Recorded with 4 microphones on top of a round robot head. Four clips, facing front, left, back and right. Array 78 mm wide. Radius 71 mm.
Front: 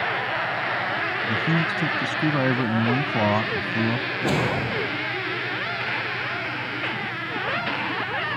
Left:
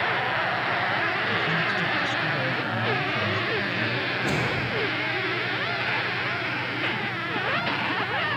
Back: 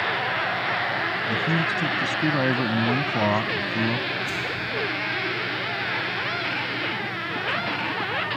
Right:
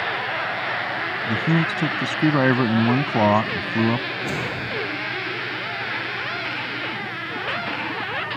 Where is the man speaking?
85° right.